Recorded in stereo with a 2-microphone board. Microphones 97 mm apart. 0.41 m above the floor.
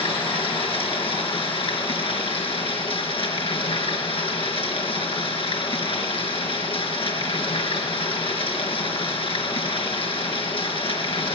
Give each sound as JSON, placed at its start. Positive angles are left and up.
{"t": 0.0, "sound": "running water", "side_deg": 80, "distance_m": 4.5}